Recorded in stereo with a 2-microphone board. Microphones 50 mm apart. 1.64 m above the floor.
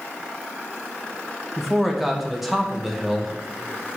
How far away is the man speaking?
About 2.5 m.